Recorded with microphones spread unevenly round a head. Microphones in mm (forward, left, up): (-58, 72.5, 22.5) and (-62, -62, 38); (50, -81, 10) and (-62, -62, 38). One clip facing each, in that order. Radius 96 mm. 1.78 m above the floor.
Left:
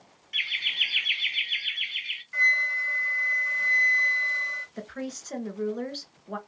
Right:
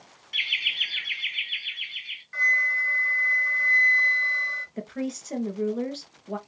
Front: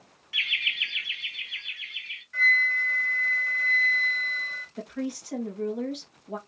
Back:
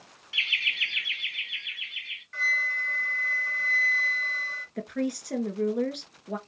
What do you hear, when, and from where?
0.3 s laughter: 140° right, 0.9 m; by 2.2 s 120° left, 1.6 m
2.3 s a flute: 160° left, 2.5 m
4.8 s a woman speaking: 170° right, 2 m